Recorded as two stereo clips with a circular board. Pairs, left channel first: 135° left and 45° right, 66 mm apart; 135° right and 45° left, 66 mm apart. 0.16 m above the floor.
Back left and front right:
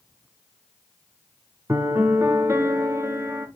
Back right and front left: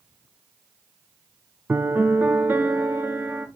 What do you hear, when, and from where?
1.7 s a piano: 10° right, 1.5 m